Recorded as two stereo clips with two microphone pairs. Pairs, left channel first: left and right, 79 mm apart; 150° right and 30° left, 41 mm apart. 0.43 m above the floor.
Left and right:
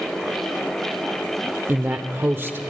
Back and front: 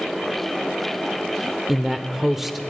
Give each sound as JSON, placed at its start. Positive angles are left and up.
{"t": 1.7, "sound": "a man speaking", "azimuth_deg": -50, "distance_m": 0.9}